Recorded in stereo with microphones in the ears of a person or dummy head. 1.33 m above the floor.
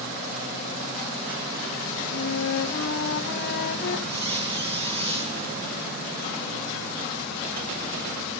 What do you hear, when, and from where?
2.1 s a flute: 55° left (ahead or behind), 0.8 m
4.1 s a squeak: 35° right (ahead or behind), 1.5 m